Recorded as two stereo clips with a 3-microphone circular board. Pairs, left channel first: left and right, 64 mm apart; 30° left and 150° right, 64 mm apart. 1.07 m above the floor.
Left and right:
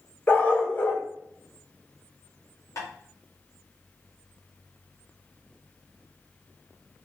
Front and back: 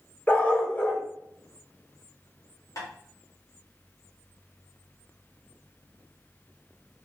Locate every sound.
0.3 s a dog barking: 55° left, 0.8 m
2.8 s tapping: 55° left, 1.9 m